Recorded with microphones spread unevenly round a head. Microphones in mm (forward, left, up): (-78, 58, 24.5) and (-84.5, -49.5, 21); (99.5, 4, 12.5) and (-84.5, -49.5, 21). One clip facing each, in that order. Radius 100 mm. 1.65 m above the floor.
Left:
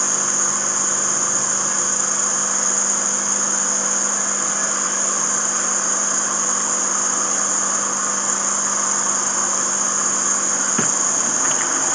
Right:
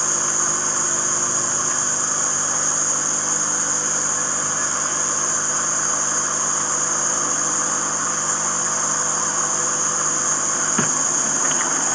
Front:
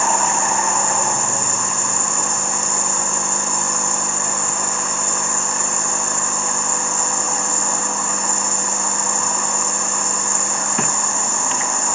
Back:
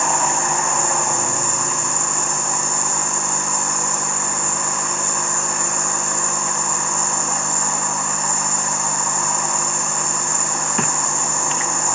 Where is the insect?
80° left, 2 m.